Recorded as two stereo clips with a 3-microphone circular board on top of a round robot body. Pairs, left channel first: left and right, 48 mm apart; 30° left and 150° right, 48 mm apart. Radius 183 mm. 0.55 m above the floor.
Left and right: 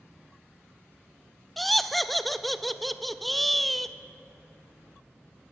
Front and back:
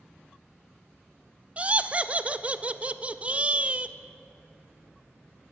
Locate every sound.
1.6 s laughter: straight behind, 0.6 m